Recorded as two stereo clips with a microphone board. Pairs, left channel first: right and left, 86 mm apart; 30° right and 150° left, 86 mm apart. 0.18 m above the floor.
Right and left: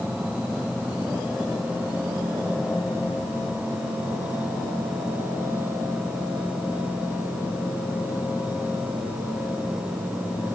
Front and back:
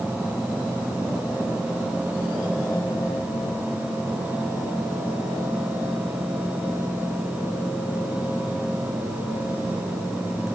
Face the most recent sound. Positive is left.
No sound to turn to.